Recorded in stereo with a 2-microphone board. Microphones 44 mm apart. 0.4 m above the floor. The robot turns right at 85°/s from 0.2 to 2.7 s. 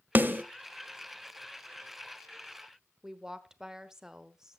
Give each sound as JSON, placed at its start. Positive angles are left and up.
{"t": 0.1, "sound": "a snare drum", "side_deg": -45, "distance_m": 0.8}
{"t": 3.0, "sound": "a woman speaking", "side_deg": -10, "distance_m": 0.9}